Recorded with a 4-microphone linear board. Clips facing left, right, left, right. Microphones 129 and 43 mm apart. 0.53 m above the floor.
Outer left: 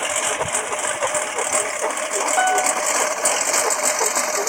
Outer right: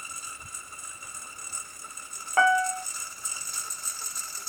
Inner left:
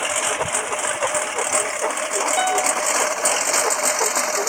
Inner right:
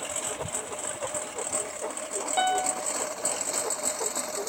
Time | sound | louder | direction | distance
0.0 | a lawn mower | outer left 23 dB, inner left 12 dB | 90° left | ?
2.4 | a piano | outer left 3 dB, inner left 3 dB | 20° left (ahead or behind) | ?